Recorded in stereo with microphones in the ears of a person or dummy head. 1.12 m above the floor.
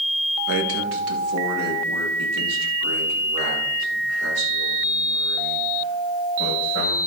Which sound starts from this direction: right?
A man speaking, at 0.5 s.